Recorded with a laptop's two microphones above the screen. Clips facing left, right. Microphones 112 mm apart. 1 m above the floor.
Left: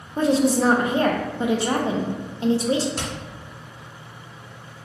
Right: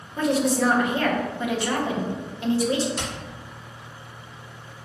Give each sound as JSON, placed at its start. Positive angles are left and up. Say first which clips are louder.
{"t": 0.2, "sound": "a woman speaking", "louder": "left 3 dB", "side_deg": 25, "distance_m": 0.5}
{"t": 3.0, "sound": "hammering", "louder": "left 1 dB", "side_deg": 55, "distance_m": 1.8}